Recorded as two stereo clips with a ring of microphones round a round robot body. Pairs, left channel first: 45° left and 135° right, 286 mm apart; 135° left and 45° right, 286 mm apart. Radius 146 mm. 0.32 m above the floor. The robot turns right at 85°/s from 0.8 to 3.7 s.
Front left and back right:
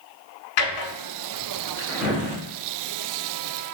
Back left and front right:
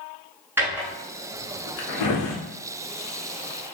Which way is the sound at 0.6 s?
40° left.